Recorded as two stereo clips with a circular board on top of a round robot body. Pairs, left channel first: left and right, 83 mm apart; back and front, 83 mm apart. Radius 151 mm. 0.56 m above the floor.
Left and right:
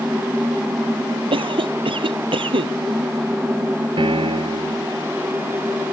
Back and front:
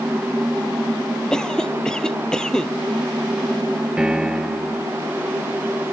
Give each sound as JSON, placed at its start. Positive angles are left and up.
{"t": 1.3, "sound": "a cough", "azimuth_deg": -100}
{"t": 4.0, "sound": "a piano", "azimuth_deg": -80}